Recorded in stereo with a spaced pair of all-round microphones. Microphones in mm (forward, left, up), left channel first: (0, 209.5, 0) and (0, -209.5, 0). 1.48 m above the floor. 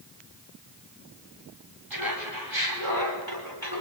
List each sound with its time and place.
1.9 s laughter: 55° right (ahead or behind), 7.5 m